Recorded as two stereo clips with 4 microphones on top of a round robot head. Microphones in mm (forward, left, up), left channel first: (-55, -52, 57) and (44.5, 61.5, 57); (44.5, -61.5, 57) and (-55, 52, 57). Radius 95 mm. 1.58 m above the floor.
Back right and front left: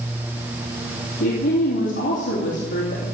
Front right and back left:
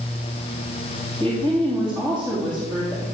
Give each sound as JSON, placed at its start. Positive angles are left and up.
{"t": 1.2, "sound": "a woman speaking", "azimuth_deg": -135, "distance_m": 3.0}